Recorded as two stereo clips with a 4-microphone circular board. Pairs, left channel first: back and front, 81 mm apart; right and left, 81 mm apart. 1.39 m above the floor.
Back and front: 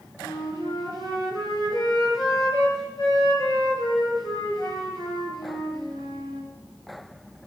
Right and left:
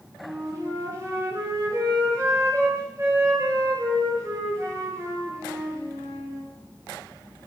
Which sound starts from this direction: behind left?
A flute, at 0.2 s.